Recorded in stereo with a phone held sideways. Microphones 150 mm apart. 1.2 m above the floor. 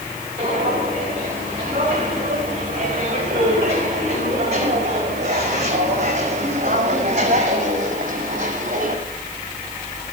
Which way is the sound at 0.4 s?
40° right (ahead or behind).